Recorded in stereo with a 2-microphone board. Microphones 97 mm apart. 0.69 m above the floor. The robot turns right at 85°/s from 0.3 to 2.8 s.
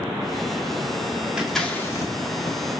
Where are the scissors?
10° right (ahead or behind), 1.9 m; by 2.6 s 55° left (ahead or behind), 1.9 m.